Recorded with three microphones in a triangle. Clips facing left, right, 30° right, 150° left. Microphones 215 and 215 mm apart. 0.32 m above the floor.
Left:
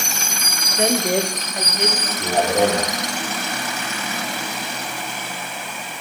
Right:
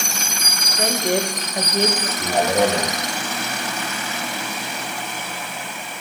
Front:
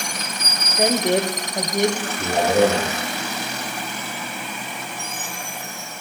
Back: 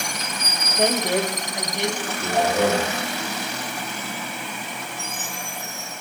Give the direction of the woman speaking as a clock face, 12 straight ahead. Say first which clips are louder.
Left 2 dB, front 2 dB; 10 o'clock.